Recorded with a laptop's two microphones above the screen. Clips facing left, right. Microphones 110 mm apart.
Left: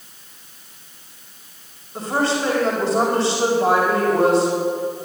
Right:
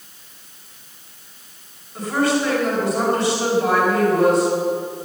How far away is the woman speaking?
About 4.5 m.